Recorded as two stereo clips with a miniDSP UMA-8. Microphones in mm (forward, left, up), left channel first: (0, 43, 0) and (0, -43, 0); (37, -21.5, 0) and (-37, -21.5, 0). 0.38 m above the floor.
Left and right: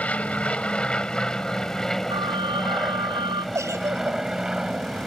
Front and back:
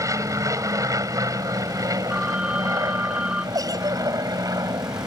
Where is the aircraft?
160° left; by 5.1 s 170° right.